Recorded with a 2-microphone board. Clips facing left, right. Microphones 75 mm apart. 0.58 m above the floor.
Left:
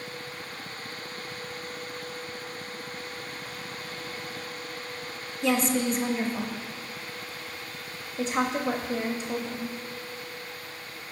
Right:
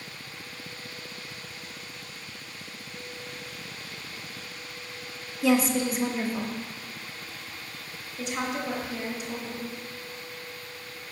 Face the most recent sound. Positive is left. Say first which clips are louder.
# left 4 dB
turn(degrees=35)  # may be behind; listen again after turning